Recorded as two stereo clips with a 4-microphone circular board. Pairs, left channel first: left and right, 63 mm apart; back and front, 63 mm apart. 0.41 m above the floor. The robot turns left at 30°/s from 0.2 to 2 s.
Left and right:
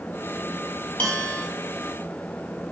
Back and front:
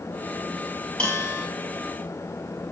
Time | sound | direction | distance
1.0 | a bell | 130° left | 1.2 m